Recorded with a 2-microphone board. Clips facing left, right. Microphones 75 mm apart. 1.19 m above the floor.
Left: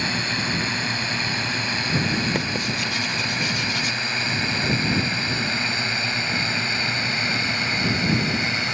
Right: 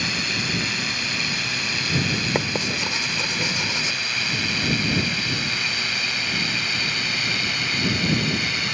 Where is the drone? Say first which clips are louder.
Left 2 dB; 30° left (ahead or behind); by 8.7 s 25° left (ahead or behind).